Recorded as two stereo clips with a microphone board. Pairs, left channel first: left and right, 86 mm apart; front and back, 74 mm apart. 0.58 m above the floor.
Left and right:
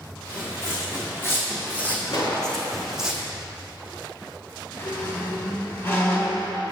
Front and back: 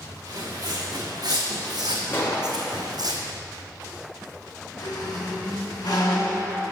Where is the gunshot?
55° left, 1.5 m.